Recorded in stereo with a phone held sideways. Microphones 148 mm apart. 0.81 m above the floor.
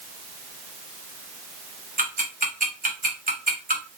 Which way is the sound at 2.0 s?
75° right (ahead or behind).